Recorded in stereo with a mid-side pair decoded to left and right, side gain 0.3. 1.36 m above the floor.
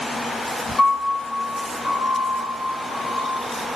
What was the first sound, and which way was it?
A piano, 65° left.